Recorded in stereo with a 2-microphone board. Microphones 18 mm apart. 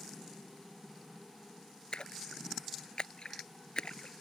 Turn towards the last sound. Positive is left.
turn(degrees=45)  # may be behind; listen again after turning